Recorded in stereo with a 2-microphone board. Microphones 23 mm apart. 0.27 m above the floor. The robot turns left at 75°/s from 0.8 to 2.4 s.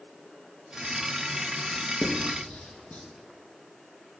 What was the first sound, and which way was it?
Writing, 40° left (ahead or behind).